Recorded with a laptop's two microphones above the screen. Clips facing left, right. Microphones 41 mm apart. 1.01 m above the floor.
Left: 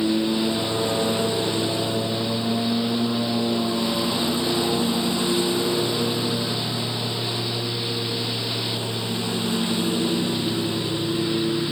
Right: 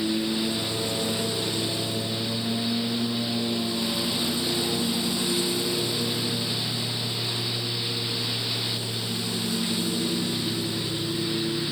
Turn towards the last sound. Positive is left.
turn(degrees=40)  # may be behind; listen again after turning